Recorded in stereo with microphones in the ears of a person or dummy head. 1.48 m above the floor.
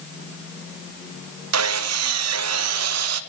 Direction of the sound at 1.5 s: 70° right (ahead or behind).